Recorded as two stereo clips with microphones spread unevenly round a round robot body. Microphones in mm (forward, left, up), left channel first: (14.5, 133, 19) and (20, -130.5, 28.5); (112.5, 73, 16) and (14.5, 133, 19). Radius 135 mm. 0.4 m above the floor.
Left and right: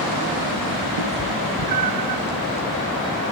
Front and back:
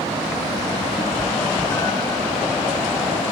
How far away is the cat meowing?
About 0.6 m.